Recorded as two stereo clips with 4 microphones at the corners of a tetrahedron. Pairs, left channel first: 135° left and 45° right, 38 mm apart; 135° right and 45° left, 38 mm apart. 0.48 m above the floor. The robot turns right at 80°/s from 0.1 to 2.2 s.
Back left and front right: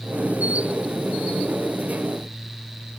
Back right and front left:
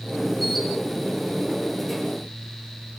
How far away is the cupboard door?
I don't hear a cupboard door.